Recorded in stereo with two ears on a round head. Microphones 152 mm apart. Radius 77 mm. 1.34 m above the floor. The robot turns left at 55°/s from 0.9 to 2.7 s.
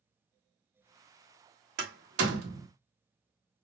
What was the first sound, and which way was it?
A door slam, 60° right (ahead or behind).